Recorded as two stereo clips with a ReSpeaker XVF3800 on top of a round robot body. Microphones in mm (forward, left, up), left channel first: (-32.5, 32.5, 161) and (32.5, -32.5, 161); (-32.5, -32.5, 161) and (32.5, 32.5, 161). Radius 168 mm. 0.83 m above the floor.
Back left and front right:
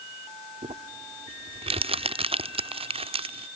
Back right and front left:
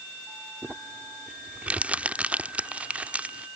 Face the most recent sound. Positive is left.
turn(degrees=-30)